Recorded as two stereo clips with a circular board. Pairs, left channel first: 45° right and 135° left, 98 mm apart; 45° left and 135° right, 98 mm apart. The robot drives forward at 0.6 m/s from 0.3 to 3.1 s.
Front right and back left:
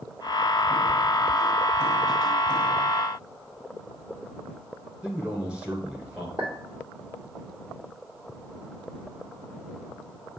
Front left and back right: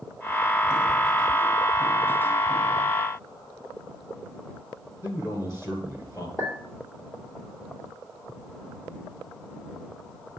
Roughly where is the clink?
Behind.